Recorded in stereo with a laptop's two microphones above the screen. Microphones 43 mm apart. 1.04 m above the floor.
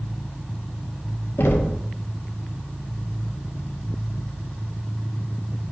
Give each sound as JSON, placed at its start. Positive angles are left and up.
{"t": 1.4, "sound": "knocking", "side_deg": 75, "distance_m": 1.2}